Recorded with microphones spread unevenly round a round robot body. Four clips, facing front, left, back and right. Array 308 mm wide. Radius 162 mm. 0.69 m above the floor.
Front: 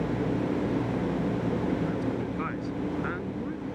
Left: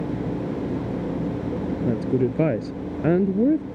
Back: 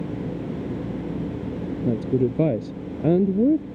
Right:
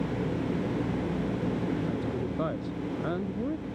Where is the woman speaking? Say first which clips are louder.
Left 9 dB, back 8 dB; 145° left.